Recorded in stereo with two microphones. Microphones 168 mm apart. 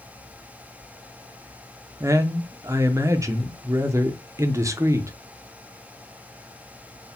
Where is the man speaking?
20° right (ahead or behind), 0.6 m.